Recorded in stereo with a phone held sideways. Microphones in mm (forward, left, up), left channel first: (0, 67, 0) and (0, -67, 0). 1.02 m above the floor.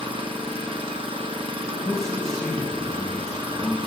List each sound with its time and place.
0.0 s an engine running: 40° right (ahead or behind), 0.7 m
1.6 s a man speaking: 5° left (ahead or behind), 1.3 m